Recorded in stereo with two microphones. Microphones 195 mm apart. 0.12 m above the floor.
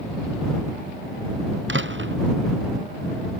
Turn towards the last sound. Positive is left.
turn(degrees=-80)